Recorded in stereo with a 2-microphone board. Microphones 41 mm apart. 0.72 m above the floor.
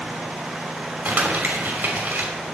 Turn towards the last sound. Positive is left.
turn(degrees=-45)  # may be behind; listen again after turning